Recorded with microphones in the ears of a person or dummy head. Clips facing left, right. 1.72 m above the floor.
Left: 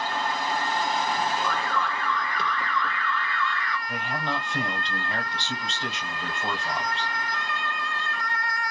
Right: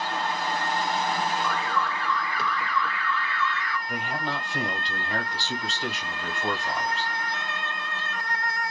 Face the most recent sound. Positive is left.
turn(degrees=0)  # may be behind; listen again after turning